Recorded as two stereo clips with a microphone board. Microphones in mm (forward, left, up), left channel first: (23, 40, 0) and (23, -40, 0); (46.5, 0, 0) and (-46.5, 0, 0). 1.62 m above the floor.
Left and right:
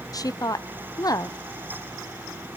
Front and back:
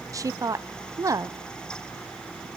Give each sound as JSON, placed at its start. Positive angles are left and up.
{"t": 0.1, "sound": "a woman speaking", "azimuth_deg": 130, "distance_m": 0.8}